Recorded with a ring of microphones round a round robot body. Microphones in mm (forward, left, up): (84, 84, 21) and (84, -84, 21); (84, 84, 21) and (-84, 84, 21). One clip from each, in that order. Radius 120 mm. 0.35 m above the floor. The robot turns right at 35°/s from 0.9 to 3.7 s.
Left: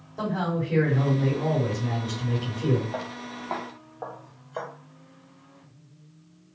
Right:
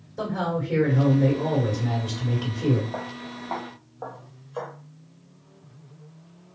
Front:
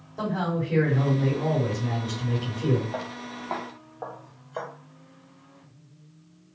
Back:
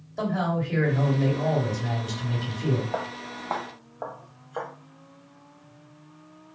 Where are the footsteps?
150° left, 0.6 m; by 4.7 s 125° left, 1.4 m.